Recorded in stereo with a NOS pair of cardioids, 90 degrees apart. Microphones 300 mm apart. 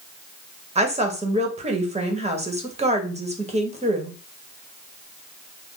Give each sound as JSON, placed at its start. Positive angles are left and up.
{"t": 0.8, "sound": "a woman speaking", "azimuth_deg": -20, "distance_m": 1.1}